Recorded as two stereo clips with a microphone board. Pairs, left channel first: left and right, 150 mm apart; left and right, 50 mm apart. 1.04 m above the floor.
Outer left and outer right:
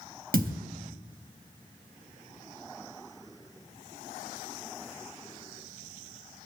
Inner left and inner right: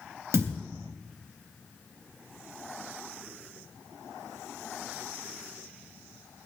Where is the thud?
75° right (ahead or behind), 3 m.